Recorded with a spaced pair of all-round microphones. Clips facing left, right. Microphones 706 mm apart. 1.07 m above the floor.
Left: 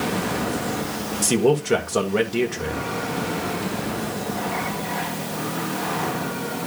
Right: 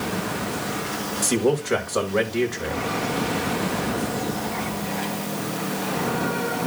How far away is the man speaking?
About 1.9 m.